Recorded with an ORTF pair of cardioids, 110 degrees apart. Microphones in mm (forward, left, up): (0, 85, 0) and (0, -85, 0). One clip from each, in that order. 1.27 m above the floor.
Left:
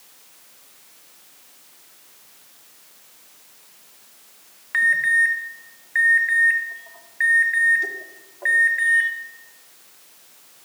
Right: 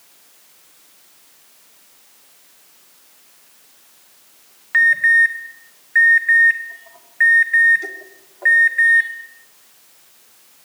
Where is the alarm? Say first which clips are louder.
Right 5 dB; 15° right, 2.0 m.